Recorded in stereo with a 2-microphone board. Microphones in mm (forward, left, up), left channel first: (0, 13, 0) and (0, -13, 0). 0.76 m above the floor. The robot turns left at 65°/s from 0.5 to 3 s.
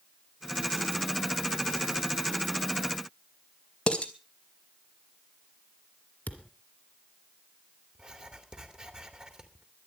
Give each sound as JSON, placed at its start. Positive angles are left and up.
{"t": 3.9, "sound": "dishes clattering", "side_deg": 40, "distance_m": 2.5}
{"t": 6.3, "sound": "a thud", "side_deg": 65, "distance_m": 2.0}
{"t": 8.0, "sound": "writing", "side_deg": -35, "distance_m": 2.5}